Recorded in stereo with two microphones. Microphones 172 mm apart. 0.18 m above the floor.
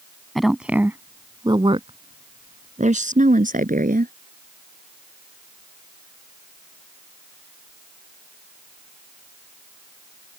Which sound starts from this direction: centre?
A woman speaking, at 0.3 s.